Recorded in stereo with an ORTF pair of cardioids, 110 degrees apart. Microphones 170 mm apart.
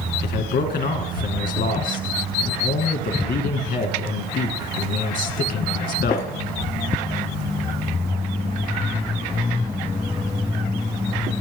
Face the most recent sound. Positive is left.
turn(degrees=65)